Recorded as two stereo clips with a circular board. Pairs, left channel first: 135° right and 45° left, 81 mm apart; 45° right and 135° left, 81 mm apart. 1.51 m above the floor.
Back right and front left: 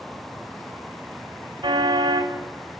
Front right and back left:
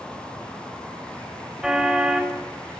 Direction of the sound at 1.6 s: 55° left.